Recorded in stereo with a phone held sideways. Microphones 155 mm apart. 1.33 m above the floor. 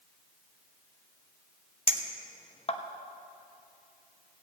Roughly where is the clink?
Left.